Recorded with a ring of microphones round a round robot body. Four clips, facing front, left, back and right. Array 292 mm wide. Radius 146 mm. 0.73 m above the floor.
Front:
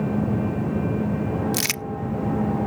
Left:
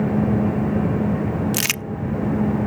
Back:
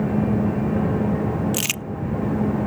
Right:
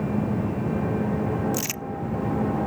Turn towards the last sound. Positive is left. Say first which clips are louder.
# left 3 dB, even
turn(degrees=80)